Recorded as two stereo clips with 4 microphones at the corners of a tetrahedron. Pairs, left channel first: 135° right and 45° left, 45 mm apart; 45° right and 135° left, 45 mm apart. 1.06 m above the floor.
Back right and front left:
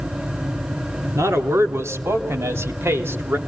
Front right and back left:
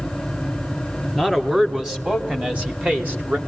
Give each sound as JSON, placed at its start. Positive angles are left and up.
{"t": 1.1, "sound": "a man speaking", "azimuth_deg": 50, "distance_m": 3.0}